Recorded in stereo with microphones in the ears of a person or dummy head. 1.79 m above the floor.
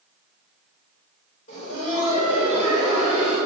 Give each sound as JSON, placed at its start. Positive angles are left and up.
{"t": 1.5, "sound": "laughter", "side_deg": 40, "distance_m": 5.0}